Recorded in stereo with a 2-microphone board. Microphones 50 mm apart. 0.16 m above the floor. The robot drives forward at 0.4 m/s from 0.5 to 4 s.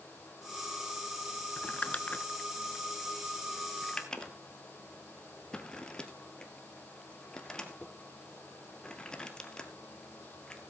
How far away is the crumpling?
About 0.8 m.